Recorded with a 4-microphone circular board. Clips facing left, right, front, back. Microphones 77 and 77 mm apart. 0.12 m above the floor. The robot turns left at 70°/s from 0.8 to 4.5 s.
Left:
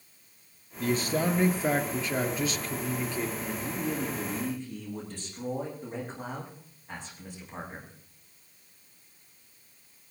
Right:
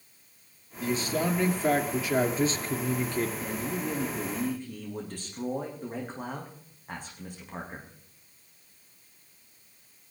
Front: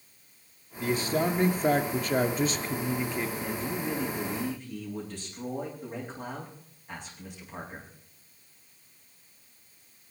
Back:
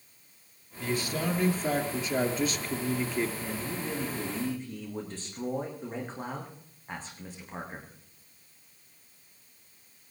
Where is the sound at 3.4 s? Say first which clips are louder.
Right 1 dB, front 3 dB; 50° right, 8.5 m; by 7.9 s 130° right, 8.5 m.